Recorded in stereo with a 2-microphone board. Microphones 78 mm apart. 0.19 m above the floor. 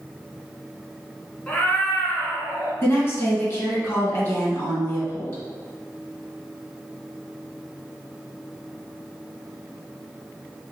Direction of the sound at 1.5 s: 15° left (ahead or behind).